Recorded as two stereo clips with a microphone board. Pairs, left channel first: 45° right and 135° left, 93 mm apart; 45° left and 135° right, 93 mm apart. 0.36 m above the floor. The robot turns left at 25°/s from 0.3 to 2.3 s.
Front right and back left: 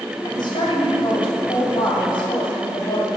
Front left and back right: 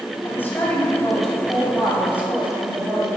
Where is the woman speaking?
20° right, 2.5 m; by 3.1 s 70° right, 2.5 m.